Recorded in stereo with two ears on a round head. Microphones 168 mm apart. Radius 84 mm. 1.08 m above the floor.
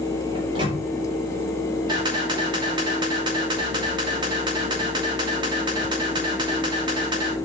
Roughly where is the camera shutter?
Right.